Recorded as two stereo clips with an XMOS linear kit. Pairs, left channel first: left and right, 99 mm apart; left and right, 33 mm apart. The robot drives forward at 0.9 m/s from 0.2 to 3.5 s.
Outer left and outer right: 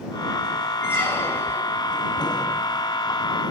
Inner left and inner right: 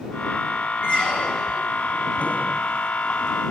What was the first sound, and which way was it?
A squeak, 25° left (ahead or behind).